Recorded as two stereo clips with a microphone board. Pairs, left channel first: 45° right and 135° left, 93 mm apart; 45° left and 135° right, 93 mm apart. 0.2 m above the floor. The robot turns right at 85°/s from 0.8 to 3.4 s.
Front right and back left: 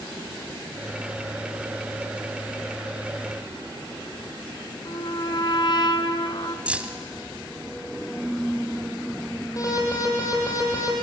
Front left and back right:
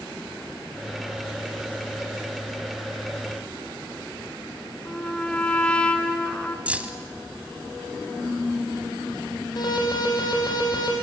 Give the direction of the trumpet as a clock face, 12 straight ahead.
1 o'clock.